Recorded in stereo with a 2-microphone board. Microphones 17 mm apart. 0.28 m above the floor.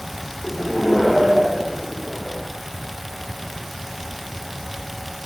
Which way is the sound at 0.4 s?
15° left (ahead or behind).